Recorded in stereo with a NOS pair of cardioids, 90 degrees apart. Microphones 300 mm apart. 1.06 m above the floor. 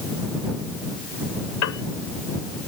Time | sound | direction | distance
1.6 | a piano | 60° left | ?